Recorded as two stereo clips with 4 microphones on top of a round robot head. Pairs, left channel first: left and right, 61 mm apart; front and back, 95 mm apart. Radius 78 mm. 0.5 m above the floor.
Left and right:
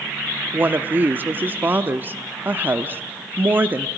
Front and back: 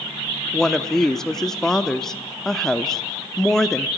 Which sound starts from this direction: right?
A woman speaking, at 0.5 s.